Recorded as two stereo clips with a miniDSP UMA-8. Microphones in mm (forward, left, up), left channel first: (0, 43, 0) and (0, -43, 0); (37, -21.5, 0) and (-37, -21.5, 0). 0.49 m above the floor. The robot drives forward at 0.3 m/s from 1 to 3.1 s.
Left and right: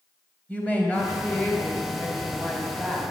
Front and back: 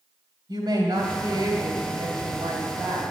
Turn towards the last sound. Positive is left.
turn(degrees=165)